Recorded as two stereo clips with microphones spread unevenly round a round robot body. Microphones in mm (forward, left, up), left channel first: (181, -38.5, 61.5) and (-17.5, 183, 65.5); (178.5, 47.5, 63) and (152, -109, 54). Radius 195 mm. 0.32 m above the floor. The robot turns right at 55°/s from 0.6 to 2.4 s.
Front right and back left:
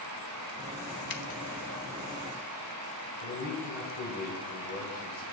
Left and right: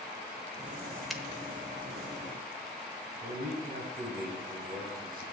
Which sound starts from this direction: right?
A man speaking, at 3.2 s.